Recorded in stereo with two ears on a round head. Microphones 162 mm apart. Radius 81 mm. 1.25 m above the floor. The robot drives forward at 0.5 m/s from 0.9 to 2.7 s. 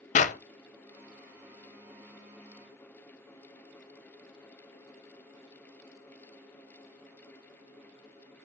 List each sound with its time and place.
0.1 s a clap: 40° left (ahead or behind), 0.7 m